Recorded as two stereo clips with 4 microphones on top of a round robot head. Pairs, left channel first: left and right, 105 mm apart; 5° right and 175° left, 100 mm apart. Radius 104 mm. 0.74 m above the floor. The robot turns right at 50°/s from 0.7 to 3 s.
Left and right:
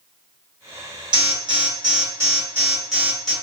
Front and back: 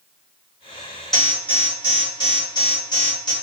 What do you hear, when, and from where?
1.1 s an alarm: 90° right, 1.6 m; by 3.3 s straight ahead, 1.6 m